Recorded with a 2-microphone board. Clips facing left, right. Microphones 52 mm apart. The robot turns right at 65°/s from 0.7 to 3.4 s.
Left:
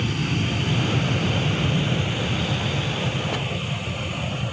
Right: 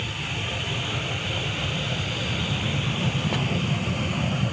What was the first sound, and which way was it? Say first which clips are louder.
An aircraft: left 5 dB; 70° left.